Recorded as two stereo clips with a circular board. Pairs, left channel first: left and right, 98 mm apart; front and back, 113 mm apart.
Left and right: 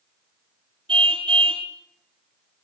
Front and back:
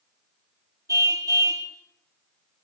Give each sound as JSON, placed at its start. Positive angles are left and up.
{"t": 0.9, "sound": "a car horn", "azimuth_deg": -120, "distance_m": 3.5}